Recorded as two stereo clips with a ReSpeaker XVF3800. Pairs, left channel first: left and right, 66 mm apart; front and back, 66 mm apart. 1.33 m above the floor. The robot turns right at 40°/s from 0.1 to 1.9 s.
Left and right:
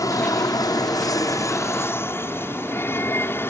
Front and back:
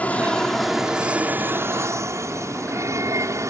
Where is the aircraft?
65° left; by 3.5 s 145° left.